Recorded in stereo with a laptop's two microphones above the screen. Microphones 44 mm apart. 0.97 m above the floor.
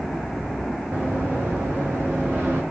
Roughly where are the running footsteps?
Right.